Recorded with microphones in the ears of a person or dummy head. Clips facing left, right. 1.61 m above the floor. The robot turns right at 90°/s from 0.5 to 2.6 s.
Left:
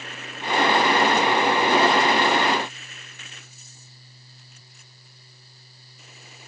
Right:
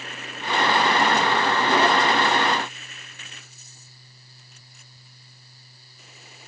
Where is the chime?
No chime in this recording.